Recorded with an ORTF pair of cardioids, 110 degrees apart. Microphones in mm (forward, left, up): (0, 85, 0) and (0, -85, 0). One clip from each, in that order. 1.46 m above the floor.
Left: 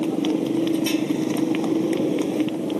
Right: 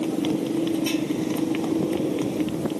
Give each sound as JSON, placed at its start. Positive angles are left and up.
{"t": 0.0, "sound": "a motorcycle", "azimuth_deg": 40}